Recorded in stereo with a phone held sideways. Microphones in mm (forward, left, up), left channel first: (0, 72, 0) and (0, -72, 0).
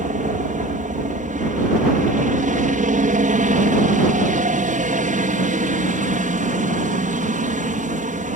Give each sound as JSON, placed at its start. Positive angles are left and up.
{"t": 0.0, "sound": "a helicopter", "side_deg": -65}